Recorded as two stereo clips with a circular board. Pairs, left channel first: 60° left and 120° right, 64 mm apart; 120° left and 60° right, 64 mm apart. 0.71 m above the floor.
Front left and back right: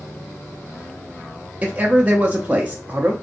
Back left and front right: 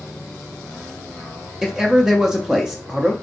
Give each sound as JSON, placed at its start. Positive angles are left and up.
{"t": 1.6, "sound": "a man speaking", "azimuth_deg": -120, "distance_m": 0.5}